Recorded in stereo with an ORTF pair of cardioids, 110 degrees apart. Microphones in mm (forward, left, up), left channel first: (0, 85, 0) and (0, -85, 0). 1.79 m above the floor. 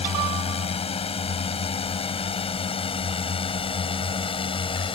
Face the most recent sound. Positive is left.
turn(degrees=30)